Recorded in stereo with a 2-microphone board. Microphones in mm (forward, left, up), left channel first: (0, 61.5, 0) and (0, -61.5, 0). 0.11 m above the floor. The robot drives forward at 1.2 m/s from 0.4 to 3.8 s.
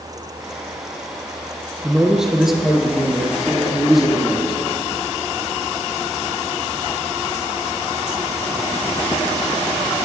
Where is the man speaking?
5° right (ahead or behind), 1.3 m; by 4.6 s centre (ahead or behind), 3 m.